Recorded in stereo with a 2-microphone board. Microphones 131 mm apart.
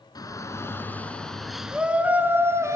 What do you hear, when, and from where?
0.1 s a shout: 30° left (ahead or behind), 1.5 m; by 2.8 s 25° right (ahead or behind), 1.9 m